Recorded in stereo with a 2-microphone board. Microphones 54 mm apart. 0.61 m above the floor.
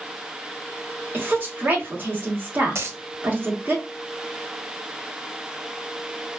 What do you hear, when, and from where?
1.1 s a woman speaking: 35° right (ahead or behind), 1.3 m
2.8 s a dropped coin: 55° right (ahead or behind), 0.6 m